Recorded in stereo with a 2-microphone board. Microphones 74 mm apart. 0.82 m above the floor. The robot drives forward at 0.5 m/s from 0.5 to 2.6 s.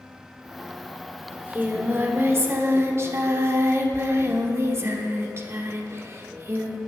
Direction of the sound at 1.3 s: 25° right (ahead or behind).